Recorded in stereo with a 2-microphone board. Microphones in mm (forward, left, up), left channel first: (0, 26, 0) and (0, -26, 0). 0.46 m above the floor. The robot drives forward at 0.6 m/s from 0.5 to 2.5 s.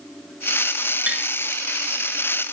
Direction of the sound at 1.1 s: 25° right (ahead or behind).